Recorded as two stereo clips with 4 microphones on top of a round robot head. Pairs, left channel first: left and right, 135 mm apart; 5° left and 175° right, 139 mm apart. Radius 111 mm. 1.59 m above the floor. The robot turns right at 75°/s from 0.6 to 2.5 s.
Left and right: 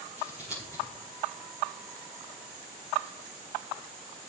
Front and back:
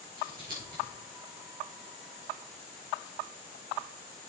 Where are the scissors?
175° right, 4.5 m; by 0.8 s 155° right, 4.5 m.